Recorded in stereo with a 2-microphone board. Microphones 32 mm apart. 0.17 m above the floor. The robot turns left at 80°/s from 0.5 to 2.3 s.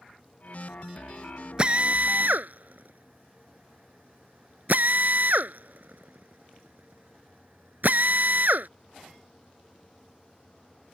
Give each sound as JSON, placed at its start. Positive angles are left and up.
{"t": 1.6, "sound": "a drill", "side_deg": -35}